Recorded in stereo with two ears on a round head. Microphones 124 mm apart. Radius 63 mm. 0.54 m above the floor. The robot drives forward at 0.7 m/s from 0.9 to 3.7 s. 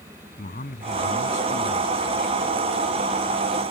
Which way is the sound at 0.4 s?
55° left (ahead or behind).